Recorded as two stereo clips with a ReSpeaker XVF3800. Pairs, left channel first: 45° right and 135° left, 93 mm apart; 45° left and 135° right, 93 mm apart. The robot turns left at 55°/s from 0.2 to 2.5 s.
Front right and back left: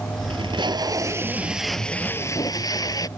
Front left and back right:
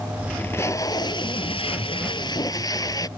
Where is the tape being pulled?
120° left; by 3.1 s straight ahead.